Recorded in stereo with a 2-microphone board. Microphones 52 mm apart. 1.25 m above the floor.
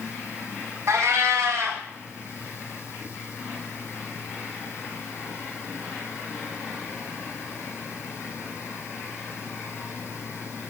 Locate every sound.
0.9 s a cat meowing: 70° right (ahead or behind), 2 m